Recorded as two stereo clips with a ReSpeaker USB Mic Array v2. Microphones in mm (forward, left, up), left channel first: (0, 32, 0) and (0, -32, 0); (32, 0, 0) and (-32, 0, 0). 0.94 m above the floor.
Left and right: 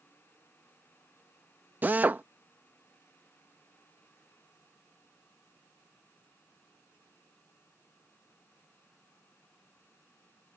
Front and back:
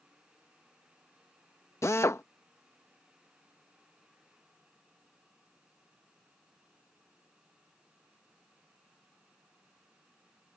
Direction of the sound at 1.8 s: 35° right.